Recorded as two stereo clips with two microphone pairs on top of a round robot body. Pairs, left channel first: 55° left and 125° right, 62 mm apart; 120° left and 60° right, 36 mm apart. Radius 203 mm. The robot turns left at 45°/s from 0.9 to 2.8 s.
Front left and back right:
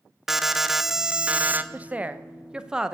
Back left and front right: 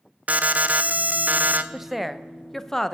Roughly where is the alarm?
Ahead right.